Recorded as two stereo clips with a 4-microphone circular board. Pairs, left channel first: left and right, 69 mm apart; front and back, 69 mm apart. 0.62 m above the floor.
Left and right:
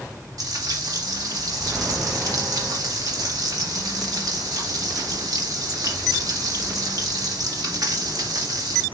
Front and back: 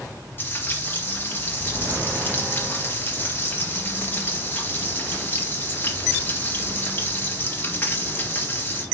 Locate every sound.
0.4 s frying: 60° right, 3 m